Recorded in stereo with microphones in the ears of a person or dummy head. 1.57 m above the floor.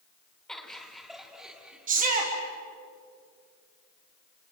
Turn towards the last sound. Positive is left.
turn(degrees=-45)  # may be behind; listen again after turning